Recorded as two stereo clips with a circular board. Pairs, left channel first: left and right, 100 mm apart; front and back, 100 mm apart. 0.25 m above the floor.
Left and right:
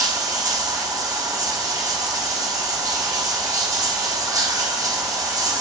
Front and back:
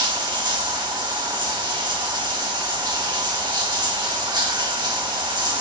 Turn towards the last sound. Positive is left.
turn(degrees=-140)